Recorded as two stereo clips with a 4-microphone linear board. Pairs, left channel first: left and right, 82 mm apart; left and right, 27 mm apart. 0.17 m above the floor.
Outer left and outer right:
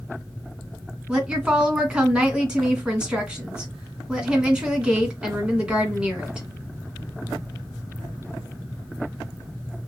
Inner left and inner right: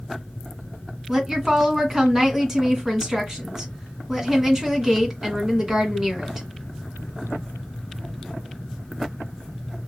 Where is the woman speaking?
10° right (ahead or behind), 2 m.